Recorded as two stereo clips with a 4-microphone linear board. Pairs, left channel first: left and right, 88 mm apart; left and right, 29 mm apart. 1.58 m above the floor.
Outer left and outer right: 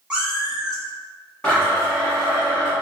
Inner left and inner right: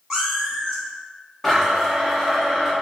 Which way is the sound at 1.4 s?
10° left (ahead or behind).